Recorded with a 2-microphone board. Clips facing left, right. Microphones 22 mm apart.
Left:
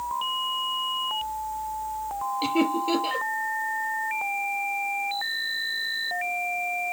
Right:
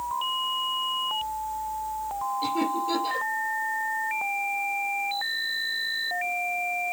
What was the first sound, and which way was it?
Laughter, 40° left (ahead or behind).